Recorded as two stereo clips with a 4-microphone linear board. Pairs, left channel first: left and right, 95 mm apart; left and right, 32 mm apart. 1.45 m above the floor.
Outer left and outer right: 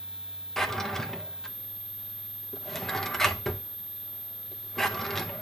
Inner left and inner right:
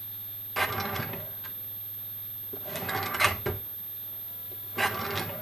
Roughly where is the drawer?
Centre.